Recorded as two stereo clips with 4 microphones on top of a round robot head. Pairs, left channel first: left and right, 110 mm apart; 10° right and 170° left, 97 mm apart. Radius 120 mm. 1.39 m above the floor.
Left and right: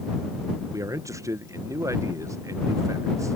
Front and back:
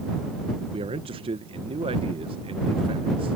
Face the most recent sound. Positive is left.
turn(degrees=-155)